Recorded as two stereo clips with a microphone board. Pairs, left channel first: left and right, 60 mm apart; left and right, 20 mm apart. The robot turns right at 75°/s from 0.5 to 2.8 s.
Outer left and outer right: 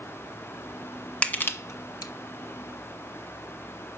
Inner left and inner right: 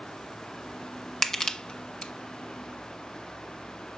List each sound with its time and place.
1.2 s crushing: 20° left (ahead or behind), 1.1 m; by 2.1 s 80° left, 1.1 m